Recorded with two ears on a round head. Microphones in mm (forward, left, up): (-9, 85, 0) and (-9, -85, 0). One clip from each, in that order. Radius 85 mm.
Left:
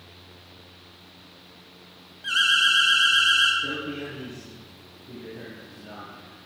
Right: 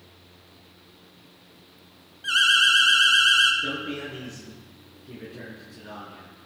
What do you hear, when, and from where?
2.2 s an alarm: 15° right (ahead or behind), 2 m
3.6 s a man speaking: 75° right (ahead or behind), 6.5 m